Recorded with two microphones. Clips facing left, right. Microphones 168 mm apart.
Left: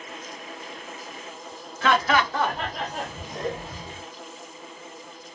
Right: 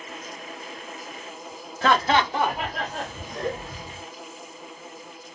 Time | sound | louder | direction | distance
1.8 | laughter | right 1 dB | 40° right (ahead or behind) | 0.6 m